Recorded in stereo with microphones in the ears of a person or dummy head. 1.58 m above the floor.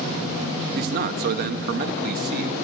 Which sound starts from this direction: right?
A man speaking, at 0.8 s.